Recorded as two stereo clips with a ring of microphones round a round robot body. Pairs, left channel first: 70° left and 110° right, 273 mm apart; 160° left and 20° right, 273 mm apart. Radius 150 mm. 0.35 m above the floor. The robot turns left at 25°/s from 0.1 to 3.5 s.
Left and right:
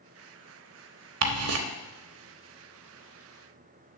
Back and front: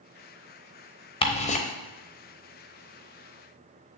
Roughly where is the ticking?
Behind right.